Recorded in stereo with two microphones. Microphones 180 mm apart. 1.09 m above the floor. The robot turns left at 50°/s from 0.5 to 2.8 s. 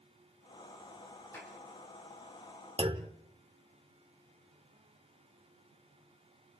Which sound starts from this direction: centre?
A clap, at 1.3 s.